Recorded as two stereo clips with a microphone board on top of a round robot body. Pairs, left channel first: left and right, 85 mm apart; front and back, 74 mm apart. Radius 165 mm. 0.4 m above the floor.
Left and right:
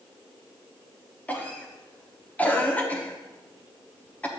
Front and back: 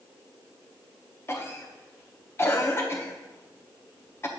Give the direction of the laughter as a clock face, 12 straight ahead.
I don't hear laughter.